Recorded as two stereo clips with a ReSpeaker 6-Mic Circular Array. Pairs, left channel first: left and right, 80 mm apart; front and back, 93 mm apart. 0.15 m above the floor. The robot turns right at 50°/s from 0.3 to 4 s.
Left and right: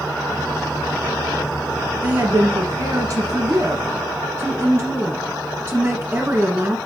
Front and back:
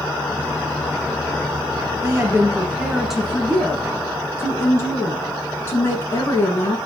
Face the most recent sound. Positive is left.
turn(degrees=-50)